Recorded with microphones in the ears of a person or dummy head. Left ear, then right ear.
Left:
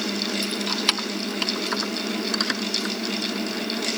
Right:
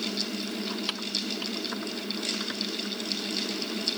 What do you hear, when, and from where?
0.4 s keys jangling: 25° left (ahead or behind); by 3.0 s 35° left (ahead or behind)